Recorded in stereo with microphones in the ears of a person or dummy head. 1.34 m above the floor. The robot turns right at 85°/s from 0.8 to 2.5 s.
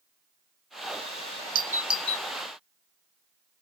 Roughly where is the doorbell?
Right.